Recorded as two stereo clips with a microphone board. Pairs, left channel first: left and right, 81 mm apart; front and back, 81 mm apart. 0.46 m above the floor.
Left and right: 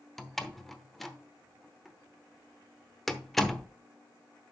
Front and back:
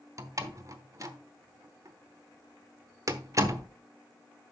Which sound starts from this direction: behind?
A door slam, at 0.2 s.